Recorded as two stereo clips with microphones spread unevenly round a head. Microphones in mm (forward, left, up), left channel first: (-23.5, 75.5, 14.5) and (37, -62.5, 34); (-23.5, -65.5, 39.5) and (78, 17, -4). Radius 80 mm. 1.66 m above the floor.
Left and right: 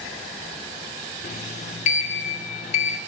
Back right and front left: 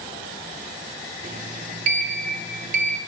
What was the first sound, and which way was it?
A sliding door, 85° left.